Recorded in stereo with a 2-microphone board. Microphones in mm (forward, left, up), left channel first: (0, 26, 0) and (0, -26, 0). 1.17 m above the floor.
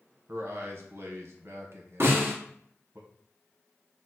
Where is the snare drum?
55° right (ahead or behind), 1.2 m.